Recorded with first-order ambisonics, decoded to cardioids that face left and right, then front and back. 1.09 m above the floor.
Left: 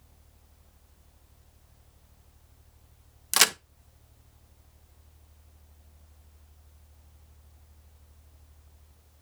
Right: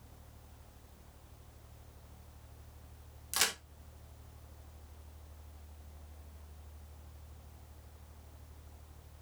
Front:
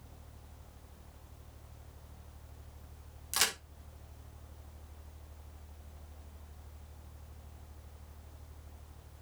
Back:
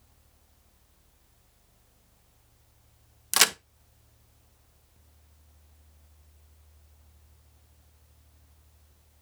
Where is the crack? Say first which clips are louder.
Left 10 dB, back 9 dB; 135° left, 0.5 m.